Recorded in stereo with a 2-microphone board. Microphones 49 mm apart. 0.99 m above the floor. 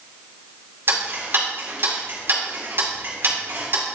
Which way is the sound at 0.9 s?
50° right (ahead or behind).